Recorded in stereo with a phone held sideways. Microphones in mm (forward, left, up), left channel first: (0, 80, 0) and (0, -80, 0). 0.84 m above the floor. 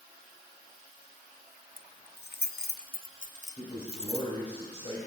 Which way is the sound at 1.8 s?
65° left (ahead or behind).